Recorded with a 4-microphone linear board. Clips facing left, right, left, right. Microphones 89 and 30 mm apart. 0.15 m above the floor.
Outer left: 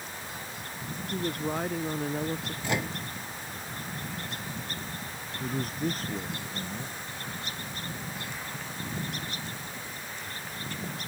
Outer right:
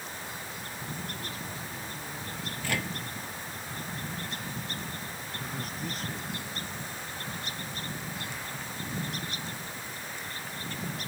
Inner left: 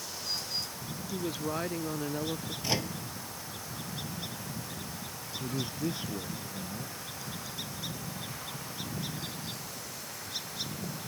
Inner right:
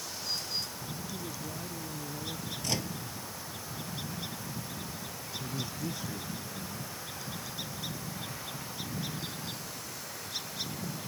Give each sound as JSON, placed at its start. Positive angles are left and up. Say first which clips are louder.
{"t": 1.1, "sound": "a woman speaking", "louder": "outer left 9 dB, inner left 6 dB", "side_deg": 60}
{"t": 2.6, "sound": "a microwave", "louder": "outer left 2 dB, inner left 3 dB", "side_deg": 20}
{"t": 5.4, "sound": "a man speaking", "louder": "outer left 8 dB, inner left 4 dB", "side_deg": 40}